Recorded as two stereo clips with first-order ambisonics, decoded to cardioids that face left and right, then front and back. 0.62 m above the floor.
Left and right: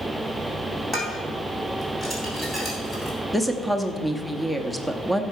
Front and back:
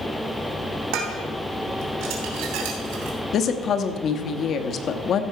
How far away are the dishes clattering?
About 3 m.